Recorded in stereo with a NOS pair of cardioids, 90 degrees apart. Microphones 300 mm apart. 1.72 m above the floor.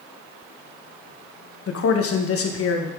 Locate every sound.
1.7 s a man speaking: 50° left, 1.7 m